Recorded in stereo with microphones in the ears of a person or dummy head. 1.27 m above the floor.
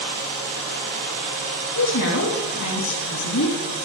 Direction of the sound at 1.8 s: 80° left.